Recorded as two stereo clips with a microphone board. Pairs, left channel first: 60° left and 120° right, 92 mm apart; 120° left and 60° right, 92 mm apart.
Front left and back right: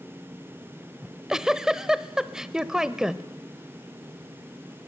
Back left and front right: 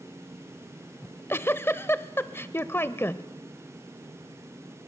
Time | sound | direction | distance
1.0 | a giggle | 160° left | 0.8 m